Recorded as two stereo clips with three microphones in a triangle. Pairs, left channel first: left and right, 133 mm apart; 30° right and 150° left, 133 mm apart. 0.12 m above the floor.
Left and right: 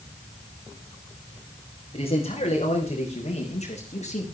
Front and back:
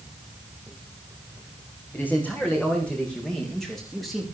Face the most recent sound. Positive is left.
turn(degrees=60)